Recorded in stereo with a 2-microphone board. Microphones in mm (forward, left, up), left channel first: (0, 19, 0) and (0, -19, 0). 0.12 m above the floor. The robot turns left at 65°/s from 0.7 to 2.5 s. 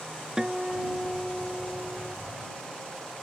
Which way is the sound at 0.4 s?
155° right.